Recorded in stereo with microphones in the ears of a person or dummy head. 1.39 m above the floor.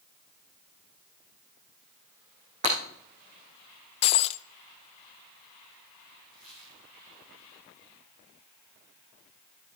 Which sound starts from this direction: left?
Breaking glass, at 4.0 s.